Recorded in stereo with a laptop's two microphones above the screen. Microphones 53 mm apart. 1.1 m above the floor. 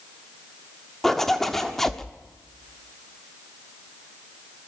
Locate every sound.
1.0 s a zipper: 5° left (ahead or behind), 1.3 m